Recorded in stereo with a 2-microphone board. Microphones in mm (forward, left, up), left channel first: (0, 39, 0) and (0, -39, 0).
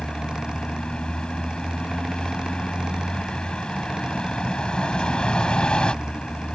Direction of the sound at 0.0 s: 10° left (ahead or behind).